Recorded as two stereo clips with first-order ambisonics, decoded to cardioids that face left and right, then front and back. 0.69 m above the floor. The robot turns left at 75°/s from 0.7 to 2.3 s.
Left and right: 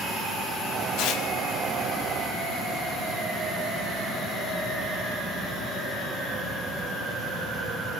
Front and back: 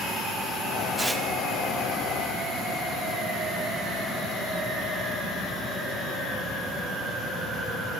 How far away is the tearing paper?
About 1.6 m.